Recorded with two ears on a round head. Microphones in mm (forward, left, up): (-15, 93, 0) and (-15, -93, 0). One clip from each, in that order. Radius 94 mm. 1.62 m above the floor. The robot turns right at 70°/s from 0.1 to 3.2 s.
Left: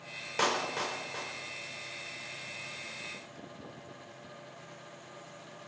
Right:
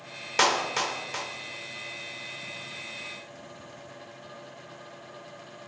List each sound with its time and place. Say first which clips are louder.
0.4 s a clap: right 7 dB; 55° right (ahead or behind), 4 m; by 1.3 s 60° right (ahead or behind), 4 m